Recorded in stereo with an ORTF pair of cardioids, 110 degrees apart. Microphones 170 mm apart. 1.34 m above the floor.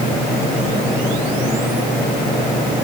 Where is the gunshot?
I don't hear a gunshot.